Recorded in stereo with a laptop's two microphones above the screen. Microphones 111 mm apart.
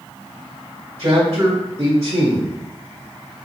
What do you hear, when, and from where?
1.0 s a man speaking: 60° right (ahead or behind), 2.0 m